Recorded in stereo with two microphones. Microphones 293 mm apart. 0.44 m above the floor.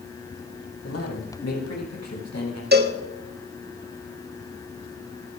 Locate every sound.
0.8 s a man speaking: 65° left (ahead or behind), 4 m; by 2.6 s 75° left (ahead or behind), 4.5 m
2.7 s a cowbell: 35° right (ahead or behind), 1.1 m